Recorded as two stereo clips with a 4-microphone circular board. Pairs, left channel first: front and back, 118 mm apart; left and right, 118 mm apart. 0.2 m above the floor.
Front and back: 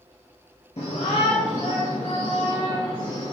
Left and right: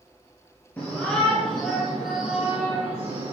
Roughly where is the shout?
Ahead.